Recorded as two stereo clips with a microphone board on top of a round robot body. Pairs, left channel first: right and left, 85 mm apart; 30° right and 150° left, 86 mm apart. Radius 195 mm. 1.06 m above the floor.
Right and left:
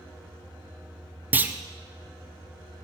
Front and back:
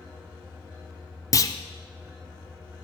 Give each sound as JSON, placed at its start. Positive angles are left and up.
{"t": 1.3, "sound": "a clunk", "azimuth_deg": 20, "distance_m": 0.5}